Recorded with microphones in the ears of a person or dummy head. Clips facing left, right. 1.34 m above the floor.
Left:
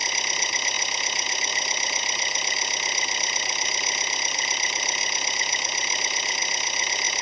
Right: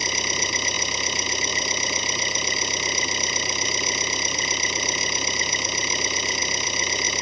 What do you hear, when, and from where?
0.0 s an engine running: 75° right (ahead or behind)